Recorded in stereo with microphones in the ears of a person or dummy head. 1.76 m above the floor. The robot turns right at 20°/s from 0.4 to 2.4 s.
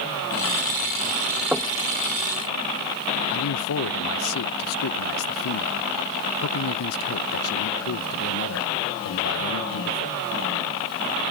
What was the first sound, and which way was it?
Knocking, 5° right (ahead or behind).